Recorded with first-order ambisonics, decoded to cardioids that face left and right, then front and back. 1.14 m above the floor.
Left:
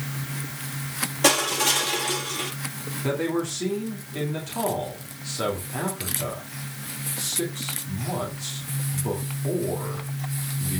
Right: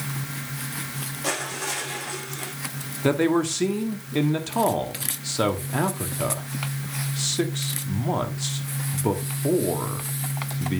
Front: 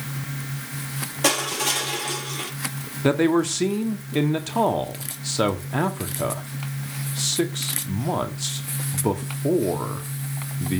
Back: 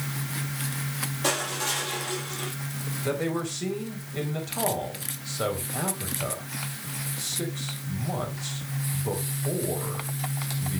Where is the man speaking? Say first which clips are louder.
Right 5 dB, front 9 dB; 25° right, 1.9 m.